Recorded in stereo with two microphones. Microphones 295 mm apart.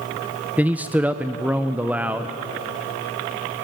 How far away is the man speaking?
About 0.6 m.